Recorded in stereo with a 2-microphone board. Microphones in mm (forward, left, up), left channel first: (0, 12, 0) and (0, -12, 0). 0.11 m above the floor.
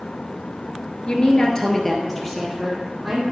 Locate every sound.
1.1 s a woman speaking: 40° left (ahead or behind), 1.3 m; by 3.2 s centre (ahead or behind), 3.5 m